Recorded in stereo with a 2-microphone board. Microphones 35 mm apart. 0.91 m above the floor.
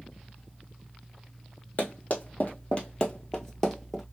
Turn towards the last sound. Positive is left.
turn(degrees=0)  # may be behind; listen again after turning